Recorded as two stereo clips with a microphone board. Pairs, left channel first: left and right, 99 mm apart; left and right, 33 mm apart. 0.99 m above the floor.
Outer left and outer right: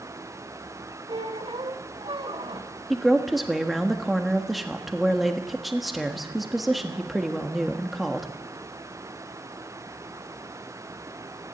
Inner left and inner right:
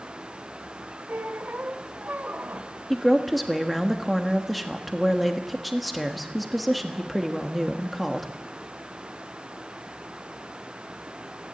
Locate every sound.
1.1 s a squeak: 70° right (ahead or behind), 2 m
2.9 s a woman speaking: centre (ahead or behind), 1.4 m